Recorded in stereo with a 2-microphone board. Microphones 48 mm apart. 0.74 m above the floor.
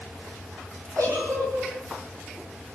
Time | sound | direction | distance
1.0 | a giggle | 75° right (ahead or behind) | 7 m